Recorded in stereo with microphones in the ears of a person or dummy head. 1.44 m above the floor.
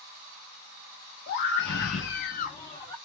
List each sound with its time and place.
1.3 s a scream: 55° left (ahead or behind), 1.2 m; by 3.0 s 15° left (ahead or behind), 0.8 m